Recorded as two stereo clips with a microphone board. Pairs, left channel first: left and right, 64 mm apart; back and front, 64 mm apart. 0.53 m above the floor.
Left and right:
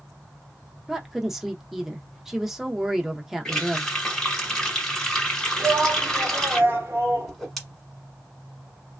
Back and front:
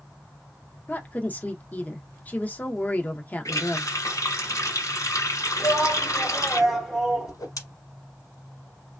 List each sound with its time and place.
0.9 s a woman speaking: 165° right, 0.7 m
3.5 s a running tap: 165° left, 1.5 m
5.6 s a shout: 90° right, 1.1 m
7.3 s a whoosh: 175° left, 1.1 m